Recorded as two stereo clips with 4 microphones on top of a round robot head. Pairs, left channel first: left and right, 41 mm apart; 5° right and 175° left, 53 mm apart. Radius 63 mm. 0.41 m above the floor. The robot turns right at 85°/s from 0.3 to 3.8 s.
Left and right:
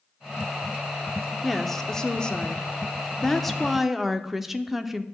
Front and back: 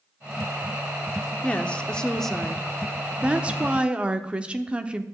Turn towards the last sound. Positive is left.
turn(degrees=-160)